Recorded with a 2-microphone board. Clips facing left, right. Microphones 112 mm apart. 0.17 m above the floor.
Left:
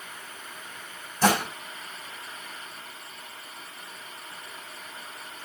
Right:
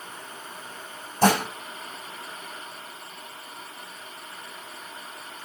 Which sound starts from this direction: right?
Dishes clattering, at 1.2 s.